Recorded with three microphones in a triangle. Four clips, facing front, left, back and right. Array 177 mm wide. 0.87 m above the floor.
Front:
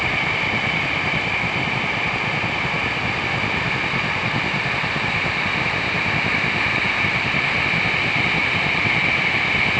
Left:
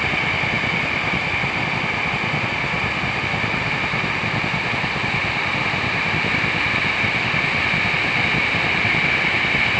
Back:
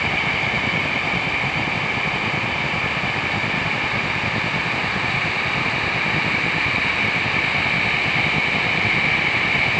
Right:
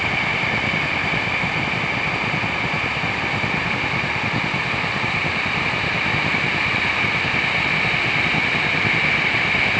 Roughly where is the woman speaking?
No woman speaking in this recording.